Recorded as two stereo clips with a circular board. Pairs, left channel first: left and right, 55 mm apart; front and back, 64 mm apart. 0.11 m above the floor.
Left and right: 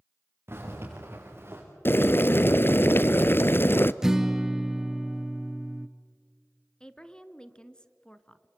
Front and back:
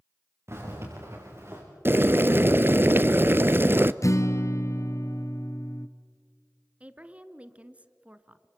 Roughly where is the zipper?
Behind right.